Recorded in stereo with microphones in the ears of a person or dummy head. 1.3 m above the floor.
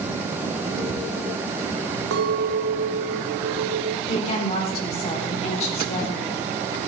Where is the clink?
60° right (ahead or behind), 1.0 m.